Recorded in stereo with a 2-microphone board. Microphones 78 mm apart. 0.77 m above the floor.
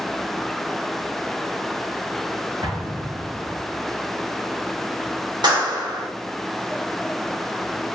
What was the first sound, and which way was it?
An explosion, 80° right.